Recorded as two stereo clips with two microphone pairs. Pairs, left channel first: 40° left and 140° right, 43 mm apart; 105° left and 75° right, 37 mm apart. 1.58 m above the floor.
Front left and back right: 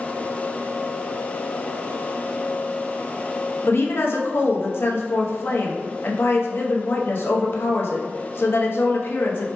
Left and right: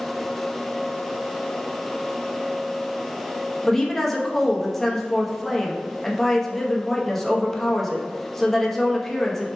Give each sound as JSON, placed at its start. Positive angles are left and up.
{"t": 3.6, "sound": "a woman speaking", "azimuth_deg": 20, "distance_m": 0.6}